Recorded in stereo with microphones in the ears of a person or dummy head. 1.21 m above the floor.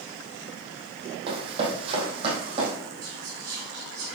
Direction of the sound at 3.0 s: 55° right (ahead or behind).